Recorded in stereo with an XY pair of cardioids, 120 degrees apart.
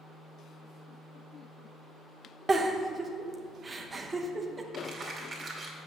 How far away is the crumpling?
About 2.5 m.